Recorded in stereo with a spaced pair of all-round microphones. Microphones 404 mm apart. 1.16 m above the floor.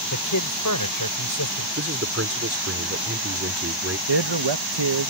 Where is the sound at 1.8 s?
35° right (ahead or behind).